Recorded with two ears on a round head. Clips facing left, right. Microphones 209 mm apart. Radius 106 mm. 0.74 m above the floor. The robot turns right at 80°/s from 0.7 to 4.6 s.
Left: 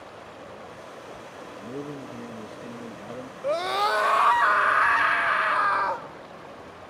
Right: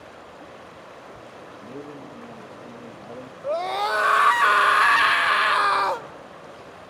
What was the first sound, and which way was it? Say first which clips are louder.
A man speaking: left 3 dB; 10° left (ahead or behind).